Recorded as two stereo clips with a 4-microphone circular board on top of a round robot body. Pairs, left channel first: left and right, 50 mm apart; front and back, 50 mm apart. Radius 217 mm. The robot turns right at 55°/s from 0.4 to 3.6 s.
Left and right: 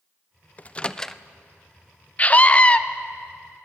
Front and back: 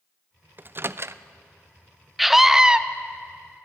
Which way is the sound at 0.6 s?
140° left.